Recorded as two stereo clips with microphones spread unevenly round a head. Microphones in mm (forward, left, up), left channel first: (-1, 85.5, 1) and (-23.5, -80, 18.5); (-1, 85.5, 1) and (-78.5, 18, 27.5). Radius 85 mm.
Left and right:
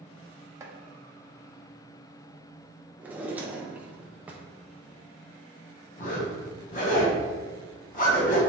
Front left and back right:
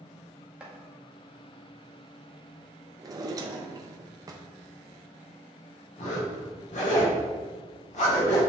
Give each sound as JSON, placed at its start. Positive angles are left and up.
{"t": 0.6, "sound": "chopping", "azimuth_deg": -125, "distance_m": 0.7}
{"t": 3.0, "sound": "a drawer", "azimuth_deg": -175, "distance_m": 0.6}
{"t": 6.0, "sound": "a zipper", "azimuth_deg": 35, "distance_m": 1.1}